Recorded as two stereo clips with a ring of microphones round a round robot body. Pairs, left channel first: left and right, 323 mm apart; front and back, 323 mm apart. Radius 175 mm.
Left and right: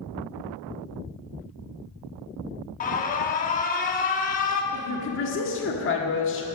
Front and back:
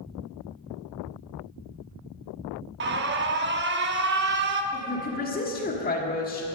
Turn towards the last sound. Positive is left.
turn(degrees=55)